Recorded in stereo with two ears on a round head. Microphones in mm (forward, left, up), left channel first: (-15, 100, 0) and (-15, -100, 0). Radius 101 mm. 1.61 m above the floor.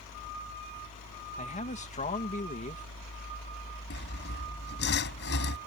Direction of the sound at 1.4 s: 35° left (ahead or behind).